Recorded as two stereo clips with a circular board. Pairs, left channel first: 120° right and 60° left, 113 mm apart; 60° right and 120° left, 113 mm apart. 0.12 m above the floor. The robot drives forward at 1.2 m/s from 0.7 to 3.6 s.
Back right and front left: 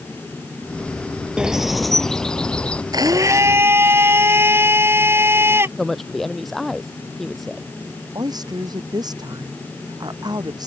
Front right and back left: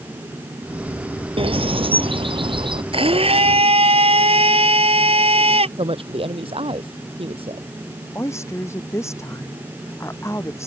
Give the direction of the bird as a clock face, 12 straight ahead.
7 o'clock.